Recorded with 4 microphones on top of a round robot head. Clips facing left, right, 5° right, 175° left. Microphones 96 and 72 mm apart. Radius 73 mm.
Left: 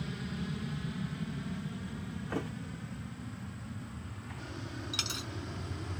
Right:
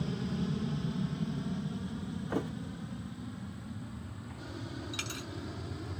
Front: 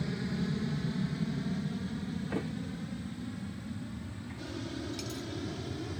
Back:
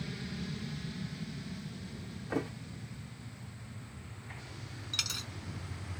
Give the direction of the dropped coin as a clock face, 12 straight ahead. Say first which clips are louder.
Even, front 4 dB; 7 o'clock.